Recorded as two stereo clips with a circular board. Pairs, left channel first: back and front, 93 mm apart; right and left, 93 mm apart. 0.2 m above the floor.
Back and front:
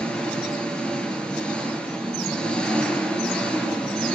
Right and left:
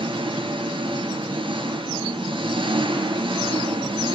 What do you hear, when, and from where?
0.0 s an engine running: 100° left, 3.5 m